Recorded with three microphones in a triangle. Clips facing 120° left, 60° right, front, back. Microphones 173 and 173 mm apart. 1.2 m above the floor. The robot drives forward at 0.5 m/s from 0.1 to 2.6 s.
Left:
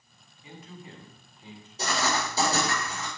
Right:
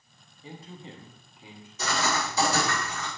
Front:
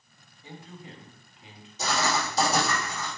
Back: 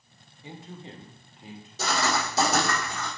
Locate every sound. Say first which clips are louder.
0.4 s a man speaking: right 2 dB, back 2 dB; 110° right, 1.0 m; by 1.7 s 135° right, 1.3 m
1.8 s writing: even, even; 175° left, 3 m